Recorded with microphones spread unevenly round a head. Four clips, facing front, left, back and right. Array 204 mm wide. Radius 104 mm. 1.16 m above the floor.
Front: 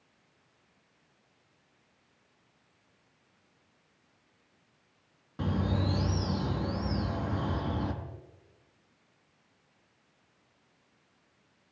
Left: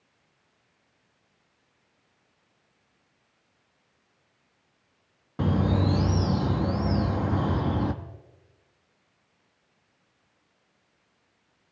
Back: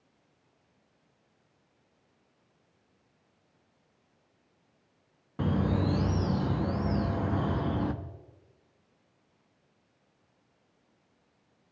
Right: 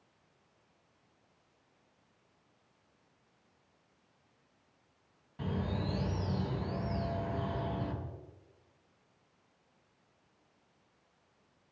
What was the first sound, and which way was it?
A bird, 110° left.